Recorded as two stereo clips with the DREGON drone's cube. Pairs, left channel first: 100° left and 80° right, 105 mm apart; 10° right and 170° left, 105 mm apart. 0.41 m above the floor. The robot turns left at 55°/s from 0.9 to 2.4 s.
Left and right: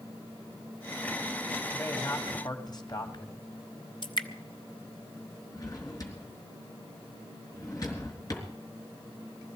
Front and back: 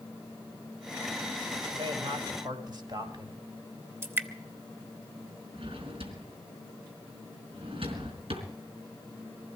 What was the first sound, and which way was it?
A man speaking, 175° left.